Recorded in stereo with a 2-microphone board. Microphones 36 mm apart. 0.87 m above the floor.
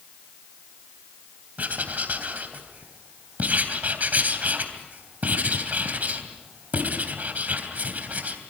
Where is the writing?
50° right (ahead or behind), 3 m.